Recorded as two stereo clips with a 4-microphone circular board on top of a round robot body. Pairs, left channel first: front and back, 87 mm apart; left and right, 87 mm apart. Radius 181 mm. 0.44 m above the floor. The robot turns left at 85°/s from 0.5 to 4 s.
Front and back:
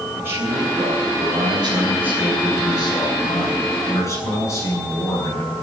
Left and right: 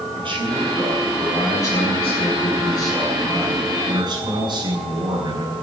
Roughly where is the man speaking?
Behind right.